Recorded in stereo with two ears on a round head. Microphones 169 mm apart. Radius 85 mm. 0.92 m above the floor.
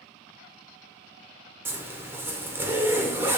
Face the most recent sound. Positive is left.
turn(degrees=-10)  # may be behind; listen again after turning